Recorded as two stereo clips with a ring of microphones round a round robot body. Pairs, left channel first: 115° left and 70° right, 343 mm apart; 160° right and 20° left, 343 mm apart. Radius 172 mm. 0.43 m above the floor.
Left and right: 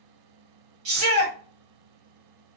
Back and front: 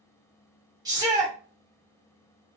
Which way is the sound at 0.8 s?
55° right.